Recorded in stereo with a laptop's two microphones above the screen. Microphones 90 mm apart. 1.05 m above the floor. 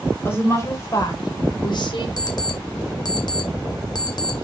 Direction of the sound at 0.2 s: 30° left (ahead or behind).